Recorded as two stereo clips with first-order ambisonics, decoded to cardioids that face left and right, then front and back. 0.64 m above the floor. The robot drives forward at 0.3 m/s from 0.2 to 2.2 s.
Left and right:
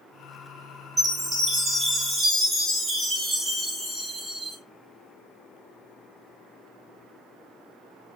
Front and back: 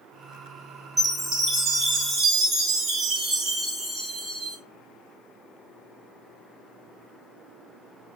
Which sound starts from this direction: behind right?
A chime, at 1.0 s.